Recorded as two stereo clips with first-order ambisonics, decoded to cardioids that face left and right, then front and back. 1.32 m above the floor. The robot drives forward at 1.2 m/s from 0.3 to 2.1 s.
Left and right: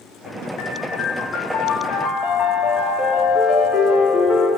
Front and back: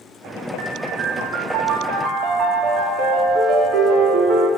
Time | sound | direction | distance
0.6 | a piano | 130° left | 2.5 m